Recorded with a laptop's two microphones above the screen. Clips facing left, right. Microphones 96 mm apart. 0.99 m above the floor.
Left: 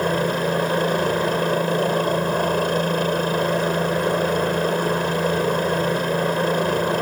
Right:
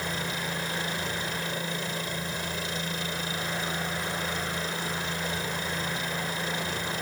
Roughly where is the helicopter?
Left.